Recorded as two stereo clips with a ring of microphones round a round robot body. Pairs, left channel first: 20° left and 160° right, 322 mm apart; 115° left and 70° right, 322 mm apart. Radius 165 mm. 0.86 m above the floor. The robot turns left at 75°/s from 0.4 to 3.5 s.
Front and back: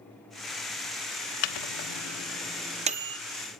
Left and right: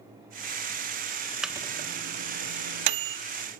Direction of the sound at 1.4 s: 20° left.